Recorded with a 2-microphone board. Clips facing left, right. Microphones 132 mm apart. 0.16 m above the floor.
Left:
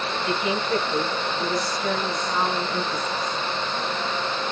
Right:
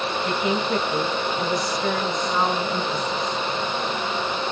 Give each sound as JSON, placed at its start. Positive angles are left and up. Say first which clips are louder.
{"t": 0.2, "sound": "a woman speaking", "louder": "right 1 dB", "side_deg": -25, "distance_m": 1.6}